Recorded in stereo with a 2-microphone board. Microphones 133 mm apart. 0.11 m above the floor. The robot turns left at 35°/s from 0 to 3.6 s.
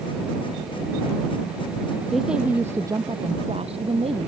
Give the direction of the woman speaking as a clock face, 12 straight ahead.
12 o'clock.